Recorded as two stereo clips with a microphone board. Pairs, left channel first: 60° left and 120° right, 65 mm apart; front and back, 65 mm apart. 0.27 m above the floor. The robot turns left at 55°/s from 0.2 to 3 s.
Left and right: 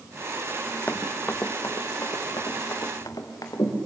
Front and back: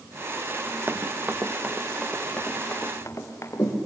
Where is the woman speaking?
I don't hear a woman speaking.